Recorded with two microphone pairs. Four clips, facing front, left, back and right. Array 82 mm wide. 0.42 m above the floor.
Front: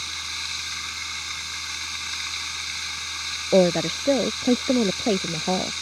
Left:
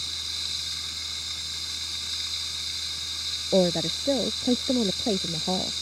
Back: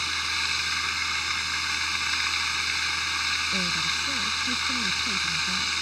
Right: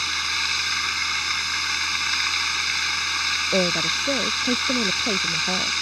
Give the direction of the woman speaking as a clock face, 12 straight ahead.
12 o'clock.